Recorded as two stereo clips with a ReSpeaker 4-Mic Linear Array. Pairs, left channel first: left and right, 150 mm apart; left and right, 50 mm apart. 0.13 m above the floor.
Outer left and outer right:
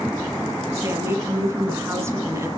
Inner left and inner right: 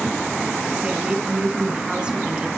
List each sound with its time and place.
0.8 s a woman speaking: 20° right (ahead or behind), 1.7 m